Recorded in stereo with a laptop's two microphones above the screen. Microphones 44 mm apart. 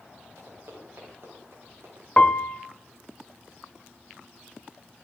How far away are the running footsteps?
About 7 m.